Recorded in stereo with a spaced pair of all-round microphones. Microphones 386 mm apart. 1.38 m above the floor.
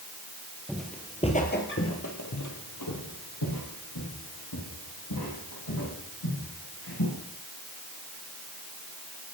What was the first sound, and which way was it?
Footsteps, 5° right (ahead or behind).